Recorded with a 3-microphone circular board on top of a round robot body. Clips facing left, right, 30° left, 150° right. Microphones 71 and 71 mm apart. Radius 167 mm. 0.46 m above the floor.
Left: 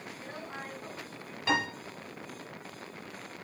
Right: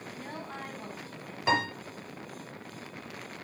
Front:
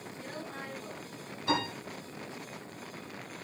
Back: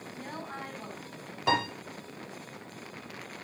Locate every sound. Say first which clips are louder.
0.1 s a woman speaking: right 3 dB, back 3 dB; 120° right, 5 m
1.5 s a piano: right 2 dB, back 3 dB; 160° right, 4.5 m